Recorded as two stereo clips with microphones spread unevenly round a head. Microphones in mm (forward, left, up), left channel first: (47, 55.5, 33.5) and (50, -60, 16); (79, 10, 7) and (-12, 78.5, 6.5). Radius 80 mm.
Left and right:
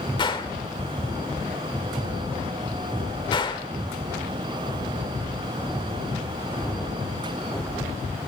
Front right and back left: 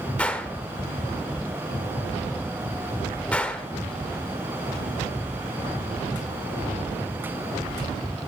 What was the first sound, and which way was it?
A gunshot, 40° left.